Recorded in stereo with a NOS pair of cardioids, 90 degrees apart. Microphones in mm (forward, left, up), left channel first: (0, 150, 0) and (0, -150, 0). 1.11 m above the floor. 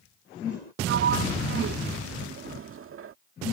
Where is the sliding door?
45° right.